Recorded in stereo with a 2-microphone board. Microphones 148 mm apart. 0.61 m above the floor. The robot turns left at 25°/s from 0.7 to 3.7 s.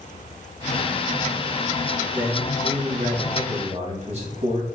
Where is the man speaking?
10° right, 4.5 m; by 4.7 s 50° right, 4.5 m.